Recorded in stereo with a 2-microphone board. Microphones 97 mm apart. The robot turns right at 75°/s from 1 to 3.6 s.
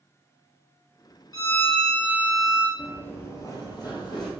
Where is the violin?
135° left, 0.7 m; by 2.7 s 120° right, 0.7 m.